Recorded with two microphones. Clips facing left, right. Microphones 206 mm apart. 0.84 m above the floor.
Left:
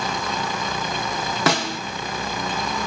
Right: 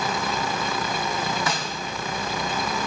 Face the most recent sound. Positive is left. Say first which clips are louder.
# left 7 dB
turn(degrees=75)  # may be behind; listen again after turning